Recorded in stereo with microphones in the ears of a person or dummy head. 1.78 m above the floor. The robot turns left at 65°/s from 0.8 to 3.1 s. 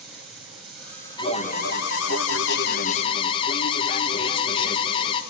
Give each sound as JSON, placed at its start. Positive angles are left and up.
{"t": 0.0, "sound": "running water", "azimuth_deg": 180, "distance_m": 9.0}
{"t": 1.2, "sound": "an alarm", "azimuth_deg": 155, "distance_m": 2.5}